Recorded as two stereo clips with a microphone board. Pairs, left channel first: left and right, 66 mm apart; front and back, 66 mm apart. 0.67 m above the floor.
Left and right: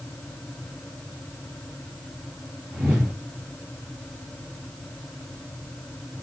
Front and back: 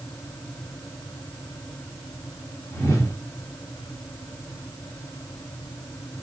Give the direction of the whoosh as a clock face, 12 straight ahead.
1 o'clock.